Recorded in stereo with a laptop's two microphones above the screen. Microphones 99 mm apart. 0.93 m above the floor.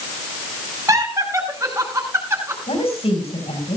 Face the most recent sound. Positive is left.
turn(degrees=85)